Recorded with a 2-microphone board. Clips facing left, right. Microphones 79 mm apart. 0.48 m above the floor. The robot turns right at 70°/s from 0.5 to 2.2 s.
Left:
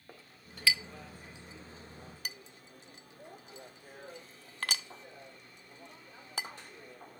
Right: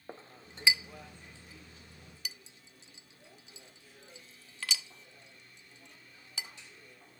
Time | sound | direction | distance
0.1 | a clink | 30° right (ahead or behind) | 0.5 m